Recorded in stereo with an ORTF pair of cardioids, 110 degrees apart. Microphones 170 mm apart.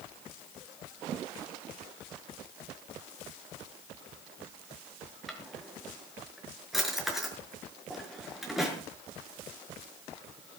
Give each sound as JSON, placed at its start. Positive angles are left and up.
{"t": 5.3, "sound": "a drawer", "azimuth_deg": 0, "distance_m": 6.0}